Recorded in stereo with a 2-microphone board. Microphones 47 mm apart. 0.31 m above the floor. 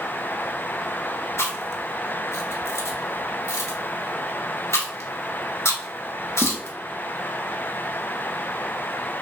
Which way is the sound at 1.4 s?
80° left.